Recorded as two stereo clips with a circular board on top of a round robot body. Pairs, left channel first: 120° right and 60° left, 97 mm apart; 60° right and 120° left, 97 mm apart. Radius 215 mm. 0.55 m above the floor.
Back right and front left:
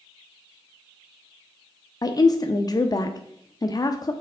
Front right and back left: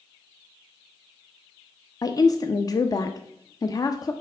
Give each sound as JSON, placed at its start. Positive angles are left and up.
{"t": 2.0, "sound": "a woman speaking", "azimuth_deg": -90, "distance_m": 0.7}